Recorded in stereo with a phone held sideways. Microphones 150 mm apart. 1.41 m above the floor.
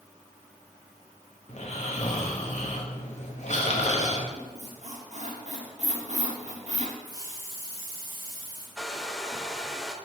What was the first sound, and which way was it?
Snoring, 50° left (ahead or behind).